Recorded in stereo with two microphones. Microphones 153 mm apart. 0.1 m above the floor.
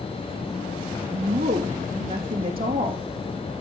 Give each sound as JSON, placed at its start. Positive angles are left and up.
{"t": 1.1, "sound": "a woman speaking", "side_deg": -70, "distance_m": 4.0}